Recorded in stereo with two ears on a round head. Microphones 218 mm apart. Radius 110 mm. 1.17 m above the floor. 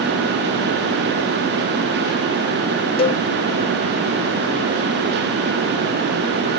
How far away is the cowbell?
About 0.7 m.